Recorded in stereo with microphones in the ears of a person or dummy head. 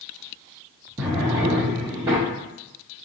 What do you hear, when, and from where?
1.0 s a drawer: 10° right (ahead or behind), 0.8 m